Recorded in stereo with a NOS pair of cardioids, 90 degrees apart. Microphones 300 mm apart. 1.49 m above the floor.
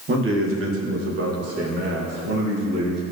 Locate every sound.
0.1 s a man speaking: 40° right, 1.8 m; by 3.1 s 55° right, 3.5 m